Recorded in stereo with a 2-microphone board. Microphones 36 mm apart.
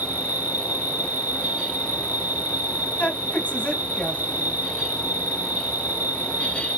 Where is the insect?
70° right (ahead or behind), 1.2 m.